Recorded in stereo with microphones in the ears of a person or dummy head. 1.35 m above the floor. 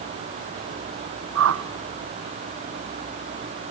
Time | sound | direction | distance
1.4 | a whoosh | 75° right (ahead or behind) | 0.7 m